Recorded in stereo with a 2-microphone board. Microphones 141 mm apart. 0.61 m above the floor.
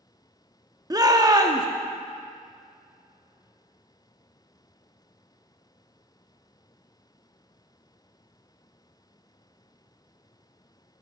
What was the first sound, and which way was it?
A shout, 30° right (ahead or behind).